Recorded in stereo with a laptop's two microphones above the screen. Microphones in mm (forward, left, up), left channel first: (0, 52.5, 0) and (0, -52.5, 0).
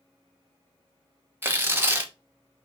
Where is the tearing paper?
20° right (ahead or behind), 0.7 m.